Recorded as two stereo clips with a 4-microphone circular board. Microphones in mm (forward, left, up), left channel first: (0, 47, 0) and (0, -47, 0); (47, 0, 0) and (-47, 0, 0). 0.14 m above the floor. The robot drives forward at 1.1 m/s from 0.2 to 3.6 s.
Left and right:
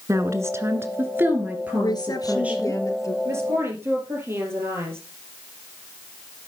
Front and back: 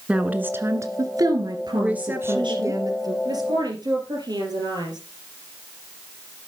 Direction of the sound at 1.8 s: 105° left.